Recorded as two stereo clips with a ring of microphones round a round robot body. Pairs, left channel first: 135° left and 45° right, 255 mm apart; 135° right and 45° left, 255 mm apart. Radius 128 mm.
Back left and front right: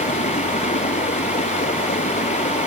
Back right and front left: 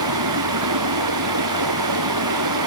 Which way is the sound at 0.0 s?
70° left.